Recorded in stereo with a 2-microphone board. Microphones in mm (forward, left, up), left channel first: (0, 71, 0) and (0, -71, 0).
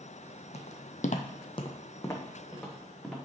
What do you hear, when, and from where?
0.5 s footsteps: 50° left (ahead or behind), 1.0 m; by 3.2 s 5° left (ahead or behind), 2.5 m